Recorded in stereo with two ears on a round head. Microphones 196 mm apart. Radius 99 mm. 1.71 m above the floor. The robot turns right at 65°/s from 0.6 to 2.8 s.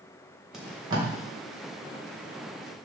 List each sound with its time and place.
0.5 s tape being pulled: centre (ahead or behind), 2.5 m; by 1.1 s 35° right (ahead or behind), 2.5 m